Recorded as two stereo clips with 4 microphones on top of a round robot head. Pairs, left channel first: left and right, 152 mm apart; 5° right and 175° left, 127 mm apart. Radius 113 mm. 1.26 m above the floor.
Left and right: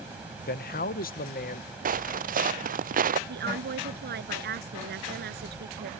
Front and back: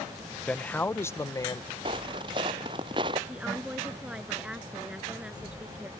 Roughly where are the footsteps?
Behind right.